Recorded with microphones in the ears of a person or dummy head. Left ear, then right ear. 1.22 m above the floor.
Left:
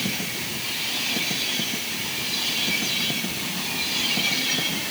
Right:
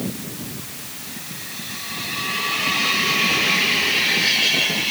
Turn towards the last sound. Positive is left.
No sound to turn to.